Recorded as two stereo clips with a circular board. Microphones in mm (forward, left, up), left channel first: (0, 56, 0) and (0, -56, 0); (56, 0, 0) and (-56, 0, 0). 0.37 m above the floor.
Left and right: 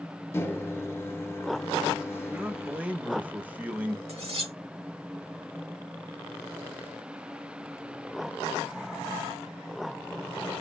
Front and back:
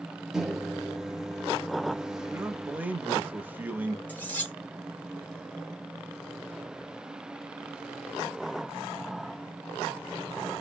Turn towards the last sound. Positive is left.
turn(degrees=-75)